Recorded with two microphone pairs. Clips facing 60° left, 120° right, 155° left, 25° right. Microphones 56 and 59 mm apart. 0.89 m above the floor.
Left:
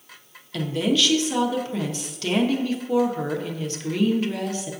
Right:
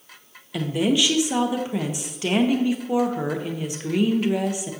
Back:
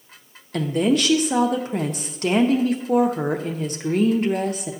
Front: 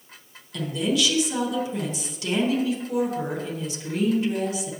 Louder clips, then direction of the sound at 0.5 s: Right 1 dB, back 5 dB; 170° left.